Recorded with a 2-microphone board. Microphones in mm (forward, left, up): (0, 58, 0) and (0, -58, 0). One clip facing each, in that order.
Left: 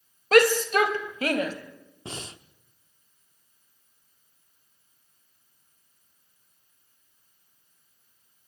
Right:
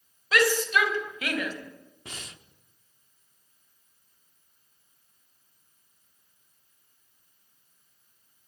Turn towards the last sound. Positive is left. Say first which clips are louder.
# left 6 dB
turn(degrees=30)  # may be behind; listen again after turning